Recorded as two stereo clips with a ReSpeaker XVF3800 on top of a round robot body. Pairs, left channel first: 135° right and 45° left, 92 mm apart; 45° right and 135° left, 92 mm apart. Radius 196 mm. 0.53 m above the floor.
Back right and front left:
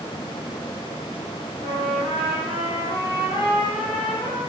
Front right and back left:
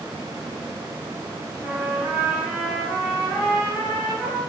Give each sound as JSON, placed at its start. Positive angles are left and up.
{"t": 1.6, "sound": "a trumpet", "azimuth_deg": -145, "distance_m": 2.5}